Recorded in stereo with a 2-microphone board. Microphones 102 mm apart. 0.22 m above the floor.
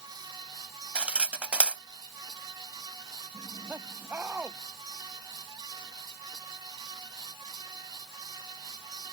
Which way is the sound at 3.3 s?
20° right (ahead or behind).